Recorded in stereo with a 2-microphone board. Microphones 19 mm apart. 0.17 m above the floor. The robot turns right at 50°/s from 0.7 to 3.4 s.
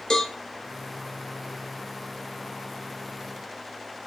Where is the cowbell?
30° left (ahead or behind), 0.7 m.